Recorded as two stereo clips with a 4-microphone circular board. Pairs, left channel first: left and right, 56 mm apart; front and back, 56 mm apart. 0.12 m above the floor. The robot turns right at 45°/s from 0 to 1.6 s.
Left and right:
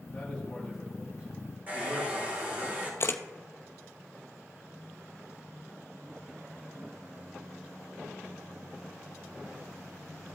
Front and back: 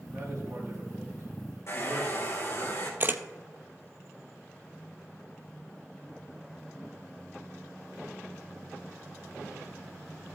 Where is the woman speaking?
155° left, 4 m; by 2.7 s 135° right, 4 m.